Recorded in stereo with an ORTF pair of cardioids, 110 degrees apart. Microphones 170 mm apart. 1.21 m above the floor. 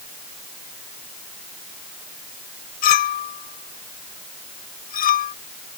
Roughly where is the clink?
Ahead left.